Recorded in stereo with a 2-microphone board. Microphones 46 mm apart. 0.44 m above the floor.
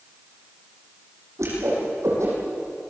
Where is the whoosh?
85° right, 9.5 m.